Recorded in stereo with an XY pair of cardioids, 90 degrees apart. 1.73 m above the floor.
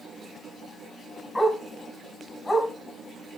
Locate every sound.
1.4 s a dog barking: 20° left, 6 m